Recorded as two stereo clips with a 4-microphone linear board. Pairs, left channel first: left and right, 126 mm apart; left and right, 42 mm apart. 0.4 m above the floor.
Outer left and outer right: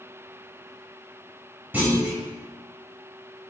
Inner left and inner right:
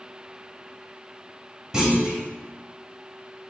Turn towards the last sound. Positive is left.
turn(degrees=-15)  # may be behind; listen again after turning